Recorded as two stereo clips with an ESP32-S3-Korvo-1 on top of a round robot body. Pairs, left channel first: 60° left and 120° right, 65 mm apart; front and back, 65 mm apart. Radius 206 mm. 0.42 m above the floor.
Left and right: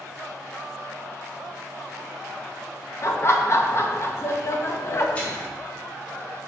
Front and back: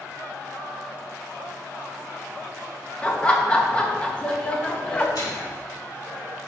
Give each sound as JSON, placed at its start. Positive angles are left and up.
{"t": 3.0, "sound": "laughter", "azimuth_deg": 60, "distance_m": 1.2}
{"t": 5.2, "sound": "a microwave", "azimuth_deg": -10, "distance_m": 2.5}